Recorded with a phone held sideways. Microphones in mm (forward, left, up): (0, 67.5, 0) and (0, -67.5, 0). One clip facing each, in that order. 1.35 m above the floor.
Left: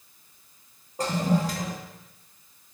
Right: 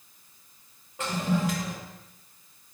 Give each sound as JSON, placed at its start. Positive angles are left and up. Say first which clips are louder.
{"t": 1.0, "sound": "a toilet flushing", "louder": "left 3 dB", "side_deg": 35, "distance_m": 1.3}